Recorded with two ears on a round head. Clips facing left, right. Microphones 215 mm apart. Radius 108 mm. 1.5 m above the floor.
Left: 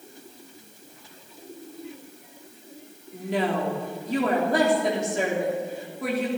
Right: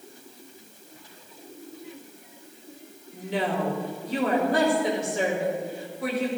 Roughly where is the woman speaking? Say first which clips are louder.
Left 2 dB; left.